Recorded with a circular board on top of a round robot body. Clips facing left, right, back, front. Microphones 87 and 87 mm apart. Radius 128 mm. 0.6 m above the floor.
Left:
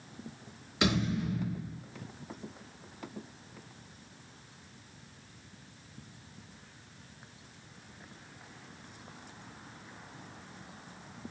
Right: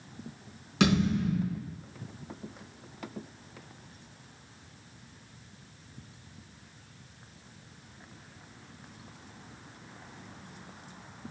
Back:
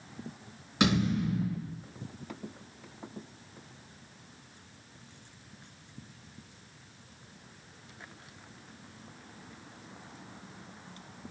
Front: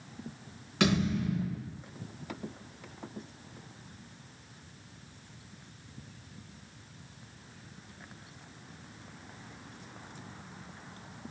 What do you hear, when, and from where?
0.8 s a thud: 105° right, 3.5 m